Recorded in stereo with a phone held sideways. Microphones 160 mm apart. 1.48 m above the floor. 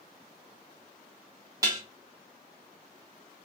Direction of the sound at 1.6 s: 20° right (ahead or behind).